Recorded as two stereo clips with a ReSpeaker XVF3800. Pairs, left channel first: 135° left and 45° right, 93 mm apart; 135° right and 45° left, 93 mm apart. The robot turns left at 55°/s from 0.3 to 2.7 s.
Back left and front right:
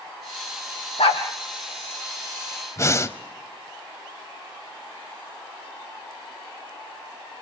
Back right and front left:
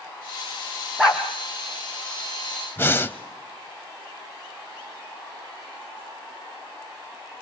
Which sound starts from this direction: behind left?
A dog barking, at 1.0 s.